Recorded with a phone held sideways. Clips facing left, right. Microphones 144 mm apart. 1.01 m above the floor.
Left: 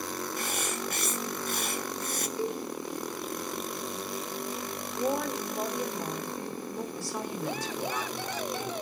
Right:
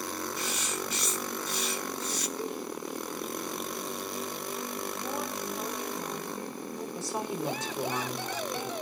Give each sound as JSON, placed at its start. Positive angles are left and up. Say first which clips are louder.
{"t": 0.4, "sound": "writing", "louder": "left 1 dB", "side_deg": 50, "distance_m": 0.8}
{"t": 2.4, "sound": "a cowbell", "louder": "left 5 dB", "side_deg": 15, "distance_m": 1.7}
{"t": 4.9, "sound": "a woman speaking", "louder": "left 5 dB", "side_deg": 70, "distance_m": 3.5}
{"t": 7.0, "sound": "a woman speaking", "louder": "right 1 dB", "side_deg": -20, "distance_m": 3.0}